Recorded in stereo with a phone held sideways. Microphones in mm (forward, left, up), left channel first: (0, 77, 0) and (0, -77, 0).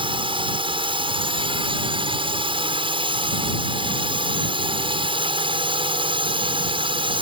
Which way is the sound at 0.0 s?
35° right (ahead or behind).